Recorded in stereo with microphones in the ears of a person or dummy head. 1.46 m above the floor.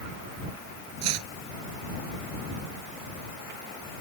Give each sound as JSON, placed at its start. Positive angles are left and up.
{"t": 1.0, "sound": "chopping", "side_deg": -80}